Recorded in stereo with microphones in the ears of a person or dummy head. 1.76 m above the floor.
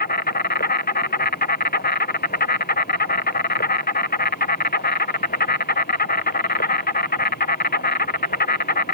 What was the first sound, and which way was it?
An insect, 50° left (ahead or behind).